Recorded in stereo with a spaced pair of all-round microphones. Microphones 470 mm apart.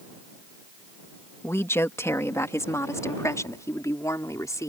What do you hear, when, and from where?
1.4 s a woman speaking: 5° left (ahead or behind)